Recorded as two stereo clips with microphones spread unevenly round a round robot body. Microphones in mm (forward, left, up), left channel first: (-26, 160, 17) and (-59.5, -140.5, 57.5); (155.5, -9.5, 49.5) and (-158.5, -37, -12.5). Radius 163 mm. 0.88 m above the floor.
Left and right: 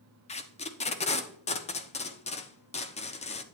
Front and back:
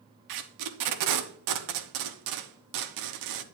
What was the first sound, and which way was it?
Tape being pulled, 155° left.